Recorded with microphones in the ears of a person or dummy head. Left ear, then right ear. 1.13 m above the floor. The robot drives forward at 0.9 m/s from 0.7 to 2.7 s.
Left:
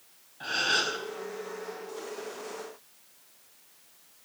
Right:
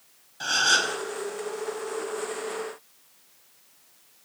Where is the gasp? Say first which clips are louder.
Right 5 dB; 90° right, 5.5 m; by 0.9 s 85° right, 5.5 m.